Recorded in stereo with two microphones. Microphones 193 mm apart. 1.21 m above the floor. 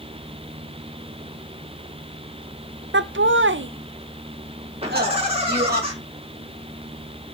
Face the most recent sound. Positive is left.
turn(degrees=-30)  # may be behind; listen again after turning